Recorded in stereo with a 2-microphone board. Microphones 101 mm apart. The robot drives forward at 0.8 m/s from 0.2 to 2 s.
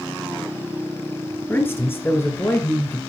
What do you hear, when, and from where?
1.5 s a man speaking: 20° left (ahead or behind), 1.2 m